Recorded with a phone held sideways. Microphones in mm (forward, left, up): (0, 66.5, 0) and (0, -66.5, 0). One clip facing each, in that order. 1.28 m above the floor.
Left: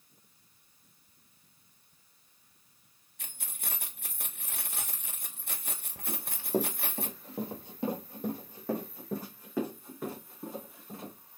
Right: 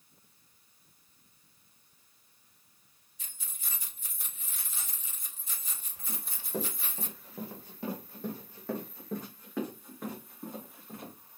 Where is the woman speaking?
I don't hear a woman speaking.